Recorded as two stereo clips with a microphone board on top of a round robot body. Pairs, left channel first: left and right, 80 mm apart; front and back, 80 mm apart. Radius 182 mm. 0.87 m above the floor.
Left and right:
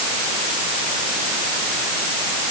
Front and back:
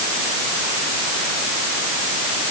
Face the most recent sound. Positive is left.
No sound to turn to.